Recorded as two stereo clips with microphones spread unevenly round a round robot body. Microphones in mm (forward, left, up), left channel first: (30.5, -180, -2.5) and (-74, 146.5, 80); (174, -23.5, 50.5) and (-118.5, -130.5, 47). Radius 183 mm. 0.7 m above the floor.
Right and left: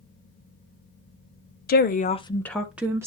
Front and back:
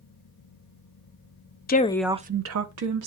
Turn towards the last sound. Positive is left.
turn(degrees=-165)